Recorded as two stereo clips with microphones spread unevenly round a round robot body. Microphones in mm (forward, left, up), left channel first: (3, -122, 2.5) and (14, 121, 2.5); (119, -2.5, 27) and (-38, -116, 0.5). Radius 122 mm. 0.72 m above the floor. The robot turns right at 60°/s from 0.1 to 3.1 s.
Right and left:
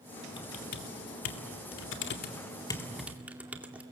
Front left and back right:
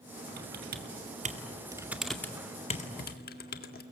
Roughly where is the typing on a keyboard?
Behind.